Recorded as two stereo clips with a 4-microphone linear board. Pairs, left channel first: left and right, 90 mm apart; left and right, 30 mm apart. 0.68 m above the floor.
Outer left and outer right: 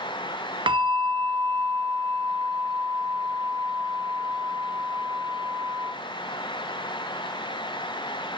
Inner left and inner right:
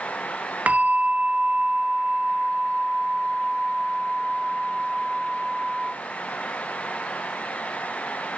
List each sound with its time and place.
0.7 s a bell: 60° right (ahead or behind), 1.4 m